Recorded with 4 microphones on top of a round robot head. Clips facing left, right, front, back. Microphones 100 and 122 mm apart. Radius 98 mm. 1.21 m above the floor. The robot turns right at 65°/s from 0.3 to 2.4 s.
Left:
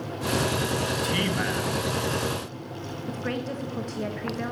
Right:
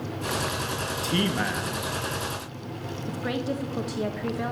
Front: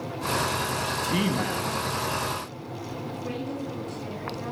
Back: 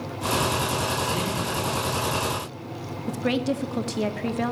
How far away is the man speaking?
About 2.0 m.